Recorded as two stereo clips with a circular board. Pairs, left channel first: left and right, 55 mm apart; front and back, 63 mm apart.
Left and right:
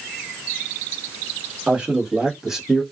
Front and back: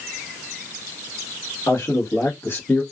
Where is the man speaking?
25° right, 1.4 m; by 2.8 s 5° left, 0.8 m.